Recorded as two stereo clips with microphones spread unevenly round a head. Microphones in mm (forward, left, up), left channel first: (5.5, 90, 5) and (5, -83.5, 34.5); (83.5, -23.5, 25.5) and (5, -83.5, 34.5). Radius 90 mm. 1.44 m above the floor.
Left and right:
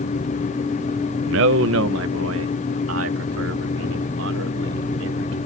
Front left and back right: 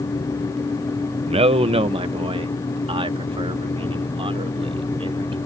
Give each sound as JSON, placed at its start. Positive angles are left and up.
{"t": 1.3, "sound": "a man speaking", "azimuth_deg": -115}